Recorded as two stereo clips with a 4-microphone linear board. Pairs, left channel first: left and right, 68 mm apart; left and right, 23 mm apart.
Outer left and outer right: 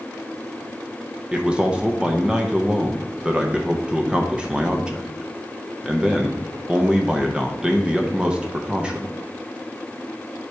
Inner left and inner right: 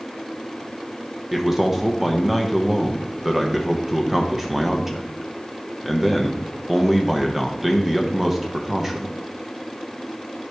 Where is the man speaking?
15° right (ahead or behind), 0.8 m.